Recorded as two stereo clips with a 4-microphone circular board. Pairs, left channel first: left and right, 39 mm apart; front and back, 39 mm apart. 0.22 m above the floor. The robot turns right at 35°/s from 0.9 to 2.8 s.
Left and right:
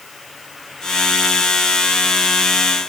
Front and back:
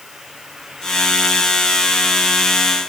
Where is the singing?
I don't hear singing.